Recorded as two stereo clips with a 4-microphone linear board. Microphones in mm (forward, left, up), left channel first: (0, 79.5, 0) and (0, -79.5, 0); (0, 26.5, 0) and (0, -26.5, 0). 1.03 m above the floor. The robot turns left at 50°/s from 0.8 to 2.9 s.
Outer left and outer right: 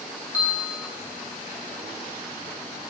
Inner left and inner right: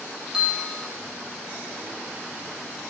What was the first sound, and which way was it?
A bell, 10° right (ahead or behind).